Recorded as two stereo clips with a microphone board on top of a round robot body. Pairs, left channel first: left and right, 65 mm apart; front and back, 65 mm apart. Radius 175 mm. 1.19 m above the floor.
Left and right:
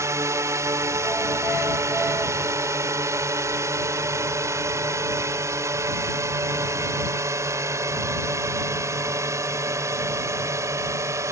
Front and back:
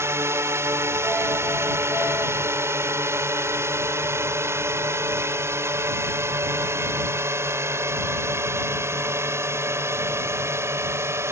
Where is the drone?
130° right.